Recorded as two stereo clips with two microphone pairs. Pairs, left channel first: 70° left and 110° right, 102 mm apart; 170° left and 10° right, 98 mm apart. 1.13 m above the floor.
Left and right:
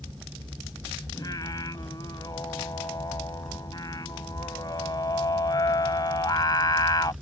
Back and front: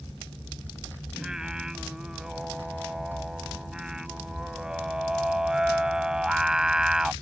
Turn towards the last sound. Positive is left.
turn(degrees=65)